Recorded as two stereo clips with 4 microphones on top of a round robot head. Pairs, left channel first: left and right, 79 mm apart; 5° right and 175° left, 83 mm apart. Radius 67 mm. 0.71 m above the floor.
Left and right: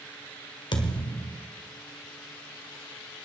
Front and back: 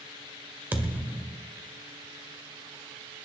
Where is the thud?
105° left, 1.5 m.